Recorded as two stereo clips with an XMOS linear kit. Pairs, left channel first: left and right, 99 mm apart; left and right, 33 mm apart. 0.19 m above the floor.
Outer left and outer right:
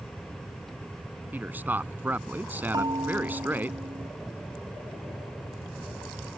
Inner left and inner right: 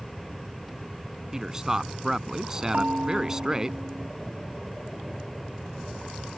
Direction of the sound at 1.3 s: 20° right (ahead or behind).